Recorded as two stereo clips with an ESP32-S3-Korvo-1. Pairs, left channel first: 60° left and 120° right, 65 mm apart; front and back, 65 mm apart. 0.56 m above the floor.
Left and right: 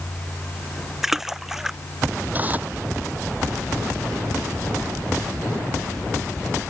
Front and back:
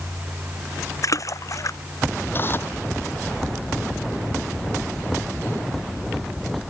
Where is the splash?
35° right.